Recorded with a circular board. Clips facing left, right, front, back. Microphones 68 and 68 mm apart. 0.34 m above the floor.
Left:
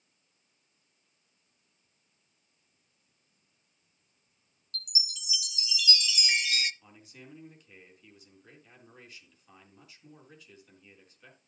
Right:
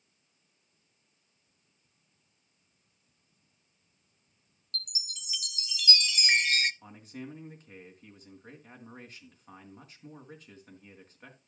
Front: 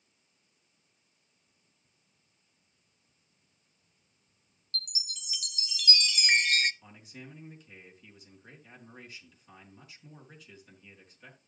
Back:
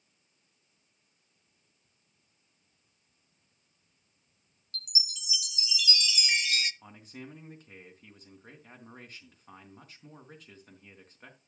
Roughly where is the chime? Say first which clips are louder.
Left 1 dB, even; ahead right.